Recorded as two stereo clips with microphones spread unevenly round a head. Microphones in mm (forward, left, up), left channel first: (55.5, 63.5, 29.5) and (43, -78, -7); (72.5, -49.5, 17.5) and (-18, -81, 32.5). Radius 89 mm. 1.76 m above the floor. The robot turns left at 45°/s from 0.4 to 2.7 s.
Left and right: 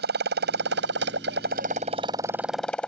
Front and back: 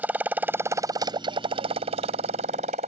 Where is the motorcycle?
90° right; by 2.9 s 165° left.